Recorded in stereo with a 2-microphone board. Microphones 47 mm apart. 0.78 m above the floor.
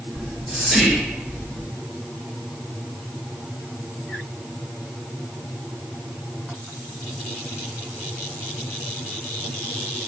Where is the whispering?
5° right (ahead or behind), 0.9 m.